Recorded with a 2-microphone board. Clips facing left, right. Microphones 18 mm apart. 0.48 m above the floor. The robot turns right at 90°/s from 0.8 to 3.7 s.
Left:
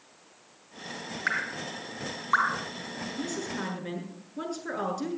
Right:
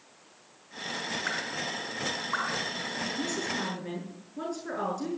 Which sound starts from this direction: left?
Dripping, at 1.3 s.